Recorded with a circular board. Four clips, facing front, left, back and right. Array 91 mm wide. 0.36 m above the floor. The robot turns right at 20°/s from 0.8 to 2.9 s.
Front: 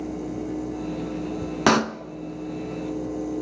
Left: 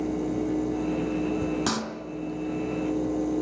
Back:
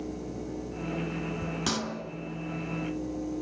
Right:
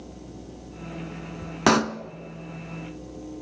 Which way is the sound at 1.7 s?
40° right.